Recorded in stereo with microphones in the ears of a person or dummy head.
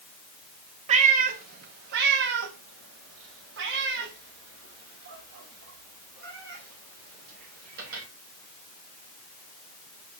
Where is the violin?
I don't hear a violin.